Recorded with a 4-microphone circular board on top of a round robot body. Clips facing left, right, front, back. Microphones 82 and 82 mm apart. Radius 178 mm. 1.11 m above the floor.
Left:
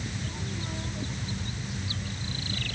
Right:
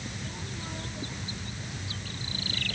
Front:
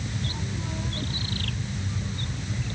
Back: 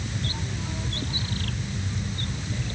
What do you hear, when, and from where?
Only background noise.